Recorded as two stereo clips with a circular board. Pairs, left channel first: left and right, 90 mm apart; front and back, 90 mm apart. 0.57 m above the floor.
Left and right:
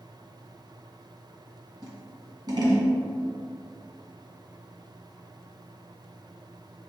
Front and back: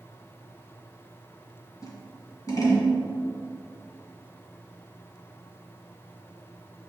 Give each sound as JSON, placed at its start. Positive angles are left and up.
{"t": 1.8, "sound": "scissors", "azimuth_deg": -50, "distance_m": 1.6}